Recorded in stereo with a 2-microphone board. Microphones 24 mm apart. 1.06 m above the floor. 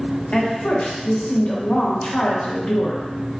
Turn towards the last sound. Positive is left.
turn(degrees=65)  # may be behind; listen again after turning